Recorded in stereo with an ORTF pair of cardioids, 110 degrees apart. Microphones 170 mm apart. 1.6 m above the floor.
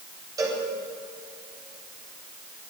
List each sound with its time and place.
0.4 s a cowbell: 20° right, 9 m